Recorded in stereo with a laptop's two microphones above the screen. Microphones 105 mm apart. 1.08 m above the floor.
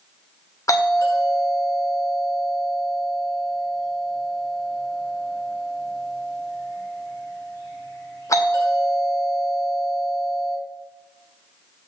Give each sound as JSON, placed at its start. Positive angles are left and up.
{"t": 0.7, "sound": "a doorbell", "side_deg": 30, "distance_m": 1.2}